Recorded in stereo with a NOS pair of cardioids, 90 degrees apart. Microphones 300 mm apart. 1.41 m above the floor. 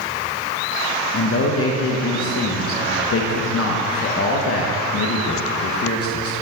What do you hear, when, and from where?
1.1 s a man speaking: 50° left, 1.2 m